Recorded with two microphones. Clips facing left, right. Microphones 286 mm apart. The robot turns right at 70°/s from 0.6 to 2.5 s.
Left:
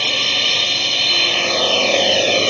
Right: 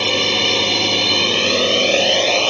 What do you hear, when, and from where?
0.0 s a drone: 105° right; by 2.5 s 25° left